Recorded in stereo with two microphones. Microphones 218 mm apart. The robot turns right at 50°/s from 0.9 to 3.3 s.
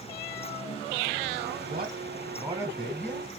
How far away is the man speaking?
About 3 m.